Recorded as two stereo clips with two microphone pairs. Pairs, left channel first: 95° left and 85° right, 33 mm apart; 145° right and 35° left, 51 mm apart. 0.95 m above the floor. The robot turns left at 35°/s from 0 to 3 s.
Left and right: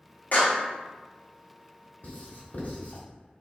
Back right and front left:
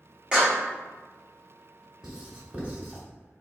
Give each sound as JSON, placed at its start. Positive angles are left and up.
{"t": 0.3, "sound": "a clap", "azimuth_deg": 110, "distance_m": 1.2}
{"t": 2.0, "sound": "writing", "azimuth_deg": 115, "distance_m": 1.3}